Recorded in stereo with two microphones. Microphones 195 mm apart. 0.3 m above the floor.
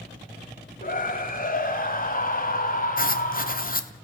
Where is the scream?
45° left (ahead or behind), 1.6 m.